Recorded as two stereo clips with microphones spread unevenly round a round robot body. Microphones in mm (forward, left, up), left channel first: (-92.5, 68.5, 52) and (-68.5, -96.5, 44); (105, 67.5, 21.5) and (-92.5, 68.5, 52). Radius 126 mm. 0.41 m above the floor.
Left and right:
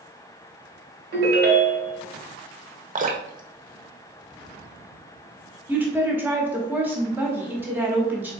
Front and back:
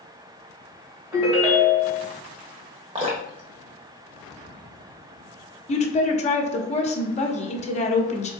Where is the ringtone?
90° right, 1.7 m.